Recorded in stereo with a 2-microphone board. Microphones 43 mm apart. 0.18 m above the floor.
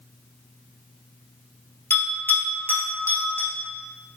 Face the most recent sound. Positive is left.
turn(degrees=55)  # may be behind; listen again after turning